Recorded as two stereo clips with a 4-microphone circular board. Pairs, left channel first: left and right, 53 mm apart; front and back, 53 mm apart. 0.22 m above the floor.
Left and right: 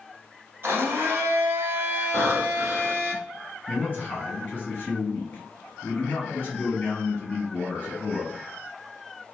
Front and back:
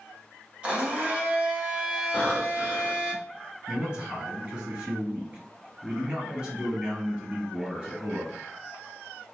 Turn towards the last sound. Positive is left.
turn(degrees=125)